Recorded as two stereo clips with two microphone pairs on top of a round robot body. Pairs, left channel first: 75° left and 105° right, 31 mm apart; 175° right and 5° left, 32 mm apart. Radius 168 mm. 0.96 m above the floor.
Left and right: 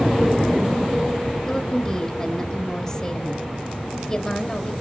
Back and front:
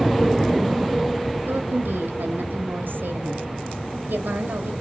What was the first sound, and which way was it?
A woman speaking, straight ahead.